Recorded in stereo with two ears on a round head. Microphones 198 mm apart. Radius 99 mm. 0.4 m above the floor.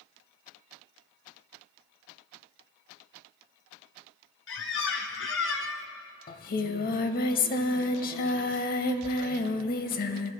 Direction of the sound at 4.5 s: 60° left (ahead or behind).